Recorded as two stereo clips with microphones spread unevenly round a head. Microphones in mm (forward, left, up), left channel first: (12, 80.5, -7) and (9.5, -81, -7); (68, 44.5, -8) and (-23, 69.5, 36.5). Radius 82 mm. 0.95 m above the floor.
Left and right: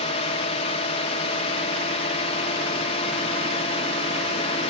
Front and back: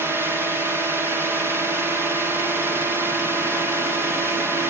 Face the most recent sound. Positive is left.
turn(degrees=80)